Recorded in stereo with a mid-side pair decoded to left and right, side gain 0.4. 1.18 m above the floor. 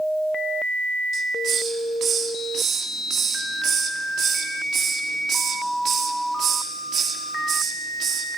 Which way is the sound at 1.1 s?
65° right.